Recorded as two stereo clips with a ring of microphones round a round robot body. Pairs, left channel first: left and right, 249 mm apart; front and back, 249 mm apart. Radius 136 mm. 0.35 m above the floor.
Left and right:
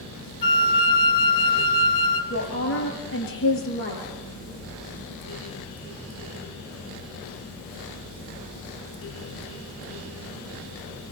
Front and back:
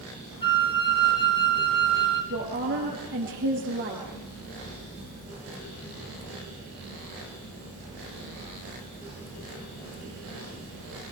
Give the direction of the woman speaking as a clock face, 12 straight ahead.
8 o'clock.